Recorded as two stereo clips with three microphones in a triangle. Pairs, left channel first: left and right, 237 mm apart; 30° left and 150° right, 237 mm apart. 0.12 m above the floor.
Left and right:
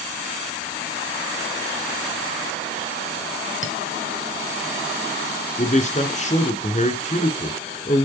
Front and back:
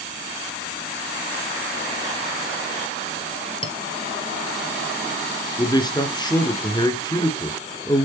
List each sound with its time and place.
3.6 s a clink: 90° left, 1.5 m
5.6 s a man speaking: 85° left, 1.6 m